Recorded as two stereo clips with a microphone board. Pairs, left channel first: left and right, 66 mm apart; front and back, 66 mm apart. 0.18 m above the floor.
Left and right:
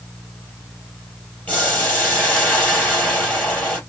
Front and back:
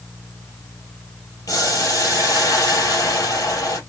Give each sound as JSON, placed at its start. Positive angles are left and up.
{"t": 1.5, "sound": "boiling", "azimuth_deg": 20, "distance_m": 3.0}